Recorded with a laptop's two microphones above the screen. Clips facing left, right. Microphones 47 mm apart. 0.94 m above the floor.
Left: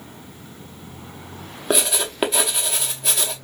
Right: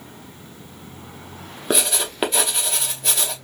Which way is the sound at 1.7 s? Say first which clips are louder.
Left 1 dB; centre (ahead or behind).